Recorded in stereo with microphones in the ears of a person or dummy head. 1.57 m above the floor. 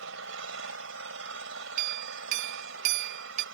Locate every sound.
0.0 s an engine running: 80° right
1.8 s a clink: 50° right (ahead or behind)